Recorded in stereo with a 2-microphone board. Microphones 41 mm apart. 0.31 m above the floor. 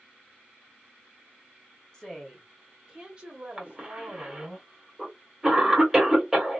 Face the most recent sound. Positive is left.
turn(degrees=-15)  # may be behind; listen again after turning